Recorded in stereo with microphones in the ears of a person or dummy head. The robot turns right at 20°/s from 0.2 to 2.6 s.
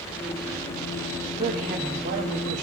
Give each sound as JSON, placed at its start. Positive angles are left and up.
{"t": 1.4, "sound": "a woman speaking", "side_deg": -30, "distance_m": 1.2}